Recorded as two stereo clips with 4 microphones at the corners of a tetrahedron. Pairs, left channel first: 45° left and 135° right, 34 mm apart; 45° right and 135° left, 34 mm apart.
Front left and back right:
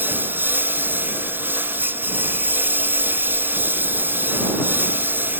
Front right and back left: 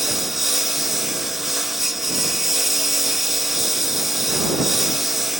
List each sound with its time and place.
0.0 s a lawn mower: 140° right